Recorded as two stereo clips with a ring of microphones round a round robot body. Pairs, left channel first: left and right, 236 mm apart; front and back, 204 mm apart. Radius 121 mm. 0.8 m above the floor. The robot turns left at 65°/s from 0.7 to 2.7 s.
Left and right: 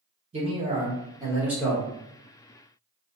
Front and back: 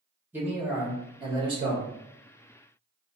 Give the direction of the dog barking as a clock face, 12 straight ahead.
I don't hear a dog barking.